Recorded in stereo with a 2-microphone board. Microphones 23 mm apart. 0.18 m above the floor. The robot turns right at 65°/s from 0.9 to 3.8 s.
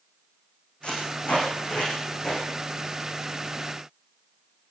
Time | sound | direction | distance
0.8 | tape being pulled | 60° left (ahead or behind) | 9 m